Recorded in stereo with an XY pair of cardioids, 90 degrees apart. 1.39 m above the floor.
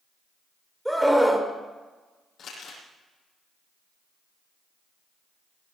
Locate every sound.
0.8 s a scream: 5° right, 4 m
2.4 s crumpling: 65° left, 9 m